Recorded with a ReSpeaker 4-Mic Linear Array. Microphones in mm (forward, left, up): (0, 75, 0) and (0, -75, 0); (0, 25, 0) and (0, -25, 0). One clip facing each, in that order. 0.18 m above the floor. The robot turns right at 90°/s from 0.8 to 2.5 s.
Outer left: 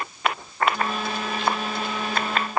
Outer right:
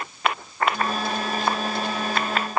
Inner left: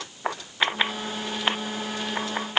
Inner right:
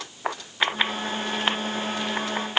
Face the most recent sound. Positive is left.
No sound to turn to.